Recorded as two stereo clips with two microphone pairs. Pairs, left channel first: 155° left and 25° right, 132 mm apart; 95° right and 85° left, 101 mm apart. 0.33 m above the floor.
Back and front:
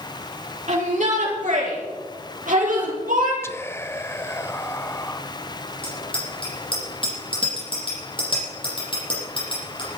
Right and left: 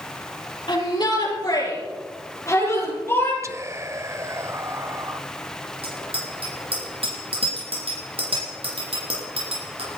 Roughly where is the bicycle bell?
Left.